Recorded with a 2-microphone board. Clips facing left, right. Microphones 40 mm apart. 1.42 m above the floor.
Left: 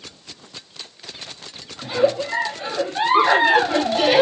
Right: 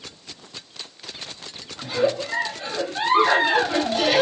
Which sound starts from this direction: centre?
A giggle, at 1.8 s.